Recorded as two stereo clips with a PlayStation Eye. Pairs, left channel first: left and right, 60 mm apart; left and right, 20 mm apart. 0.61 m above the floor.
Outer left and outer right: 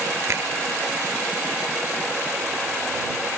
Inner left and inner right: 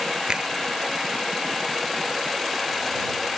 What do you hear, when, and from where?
0.3 s a finger snap: 50° right (ahead or behind)